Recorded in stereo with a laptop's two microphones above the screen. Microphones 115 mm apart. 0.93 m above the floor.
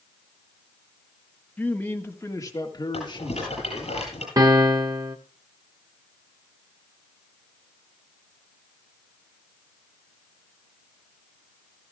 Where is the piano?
35° right (ahead or behind), 0.8 m.